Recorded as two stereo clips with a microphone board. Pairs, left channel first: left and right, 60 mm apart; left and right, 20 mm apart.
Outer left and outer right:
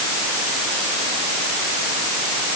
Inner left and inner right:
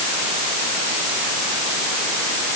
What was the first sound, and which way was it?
Only background noise.